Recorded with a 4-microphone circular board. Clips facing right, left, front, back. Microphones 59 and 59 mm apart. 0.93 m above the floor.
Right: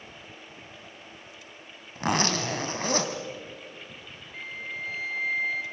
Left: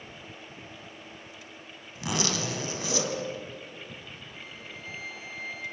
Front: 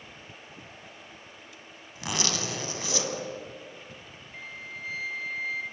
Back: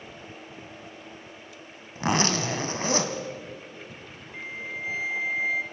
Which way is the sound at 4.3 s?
110° right.